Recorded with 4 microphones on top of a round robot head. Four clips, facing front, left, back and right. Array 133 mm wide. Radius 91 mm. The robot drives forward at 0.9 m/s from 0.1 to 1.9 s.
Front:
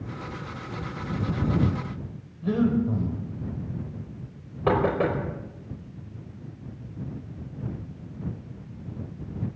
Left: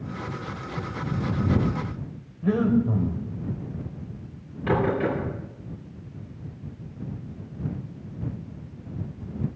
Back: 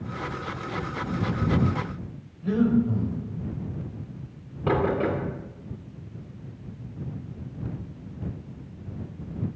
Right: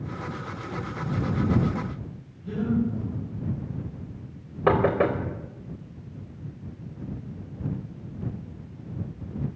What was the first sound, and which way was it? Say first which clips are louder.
Breathing: left 4 dB, back 1 dB; 70° left.